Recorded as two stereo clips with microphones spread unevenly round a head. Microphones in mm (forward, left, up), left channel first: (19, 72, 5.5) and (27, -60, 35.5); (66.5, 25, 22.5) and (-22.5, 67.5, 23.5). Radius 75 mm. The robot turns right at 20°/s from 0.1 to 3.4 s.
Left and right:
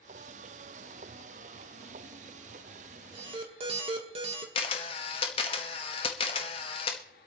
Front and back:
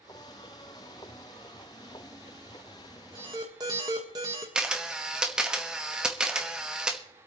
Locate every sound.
3.1 s an alarm: 145° right, 1.4 m; by 4.5 s 140° right, 1.4 m
4.5 s a camera shutter: 85° left, 1.1 m